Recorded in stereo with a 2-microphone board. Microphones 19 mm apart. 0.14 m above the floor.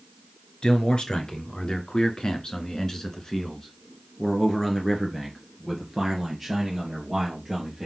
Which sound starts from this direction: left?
A man speaking, at 0.6 s.